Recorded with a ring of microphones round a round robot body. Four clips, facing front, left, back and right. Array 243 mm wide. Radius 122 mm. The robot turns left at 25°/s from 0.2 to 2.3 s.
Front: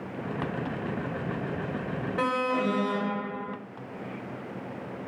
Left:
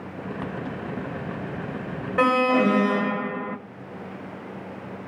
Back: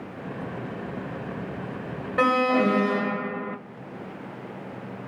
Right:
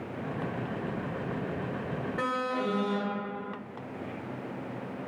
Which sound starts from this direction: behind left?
An alarm, at 2.2 s.